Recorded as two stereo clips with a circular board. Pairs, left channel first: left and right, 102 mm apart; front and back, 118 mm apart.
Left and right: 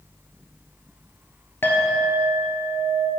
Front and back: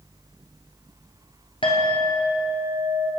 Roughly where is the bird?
No bird in this recording.